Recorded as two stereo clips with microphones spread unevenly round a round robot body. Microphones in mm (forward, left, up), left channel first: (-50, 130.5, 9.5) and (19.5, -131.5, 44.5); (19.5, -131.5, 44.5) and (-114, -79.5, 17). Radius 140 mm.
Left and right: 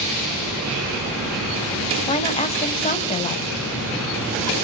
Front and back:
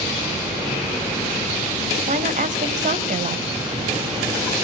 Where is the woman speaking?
170° left, 2.5 m.